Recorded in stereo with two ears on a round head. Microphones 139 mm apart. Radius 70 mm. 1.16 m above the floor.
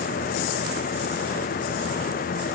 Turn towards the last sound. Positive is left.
No sound to turn to.